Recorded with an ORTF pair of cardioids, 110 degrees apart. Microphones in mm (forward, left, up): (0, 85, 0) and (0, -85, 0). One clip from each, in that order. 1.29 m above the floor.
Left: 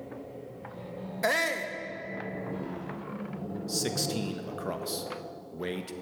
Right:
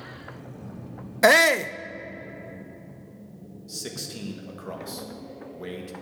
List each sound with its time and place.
1.2 s a shout: 45° right, 0.6 m
3.7 s a man speaking: 25° left, 1.4 m